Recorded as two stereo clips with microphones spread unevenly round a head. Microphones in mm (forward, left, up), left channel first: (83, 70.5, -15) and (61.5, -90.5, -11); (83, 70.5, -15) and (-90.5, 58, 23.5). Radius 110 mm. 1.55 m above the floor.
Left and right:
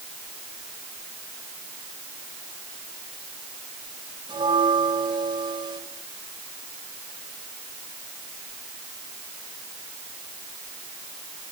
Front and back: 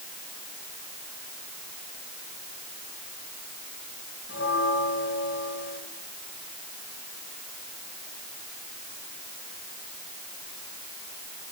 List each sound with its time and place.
4.3 s a bell: 35° right, 7 m